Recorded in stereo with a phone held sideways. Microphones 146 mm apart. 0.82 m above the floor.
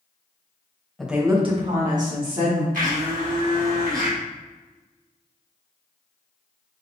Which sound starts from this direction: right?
A blender, at 2.7 s.